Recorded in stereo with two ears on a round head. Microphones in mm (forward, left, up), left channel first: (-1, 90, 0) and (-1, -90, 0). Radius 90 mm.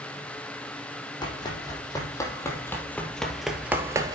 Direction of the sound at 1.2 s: 20° left (ahead or behind).